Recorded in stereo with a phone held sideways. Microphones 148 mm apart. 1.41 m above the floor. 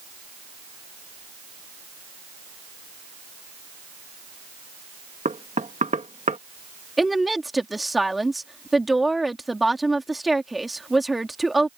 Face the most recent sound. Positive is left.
turn(degrees=0)  # may be behind; listen again after turning